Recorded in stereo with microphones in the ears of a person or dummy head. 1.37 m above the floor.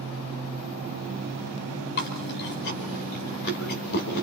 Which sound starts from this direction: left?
Chewing, at 2.0 s.